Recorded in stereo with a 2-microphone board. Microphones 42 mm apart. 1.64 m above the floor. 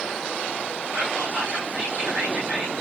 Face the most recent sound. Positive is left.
turn(degrees=-30)  # may be behind; listen again after turning